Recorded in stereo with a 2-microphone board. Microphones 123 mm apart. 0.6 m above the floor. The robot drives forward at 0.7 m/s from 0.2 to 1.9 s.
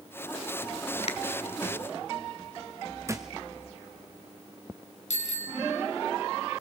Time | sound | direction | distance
1.0 | a finger snap | 60° left (ahead or behind) | 2 m
3.1 | a thud | 25° right (ahead or behind) | 2 m
5.1 | a bicycle bell | 75° left (ahead or behind) | 4.5 m